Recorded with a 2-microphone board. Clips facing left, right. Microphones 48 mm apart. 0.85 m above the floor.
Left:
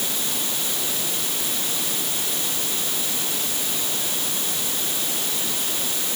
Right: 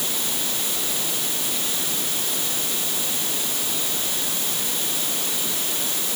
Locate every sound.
Only background noise.